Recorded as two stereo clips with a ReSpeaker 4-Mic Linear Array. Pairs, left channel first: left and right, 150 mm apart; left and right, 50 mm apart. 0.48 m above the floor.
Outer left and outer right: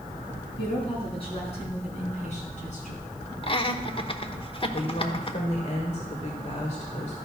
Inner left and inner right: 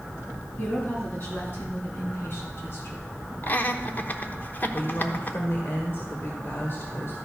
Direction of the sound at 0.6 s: 35° left (ahead or behind).